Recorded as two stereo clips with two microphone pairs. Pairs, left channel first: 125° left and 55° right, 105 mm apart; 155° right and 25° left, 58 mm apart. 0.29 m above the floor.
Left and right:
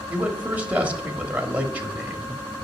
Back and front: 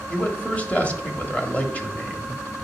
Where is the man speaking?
115° right, 1.0 m.